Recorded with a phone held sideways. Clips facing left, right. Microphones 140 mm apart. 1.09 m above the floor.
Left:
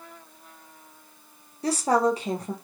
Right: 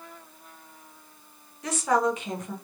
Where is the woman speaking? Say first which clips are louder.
Left 2 dB; 35° left (ahead or behind), 0.6 m.